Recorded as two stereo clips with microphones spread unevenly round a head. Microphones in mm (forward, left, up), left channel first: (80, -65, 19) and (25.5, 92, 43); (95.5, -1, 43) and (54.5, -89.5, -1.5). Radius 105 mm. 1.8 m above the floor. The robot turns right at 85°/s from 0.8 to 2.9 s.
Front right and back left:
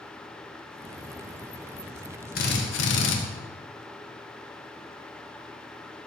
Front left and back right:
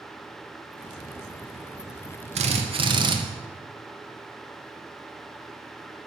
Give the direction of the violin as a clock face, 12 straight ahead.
I don't hear a violin.